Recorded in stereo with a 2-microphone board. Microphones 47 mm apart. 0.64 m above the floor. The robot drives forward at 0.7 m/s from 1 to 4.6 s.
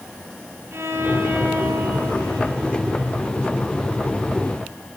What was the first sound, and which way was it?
A violin, 70° right (ahead or behind).